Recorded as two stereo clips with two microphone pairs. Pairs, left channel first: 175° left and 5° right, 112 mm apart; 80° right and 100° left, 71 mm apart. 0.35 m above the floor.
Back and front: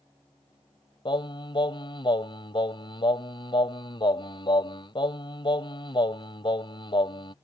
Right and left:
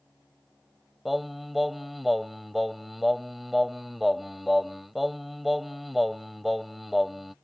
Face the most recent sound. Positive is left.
turn(degrees=-175)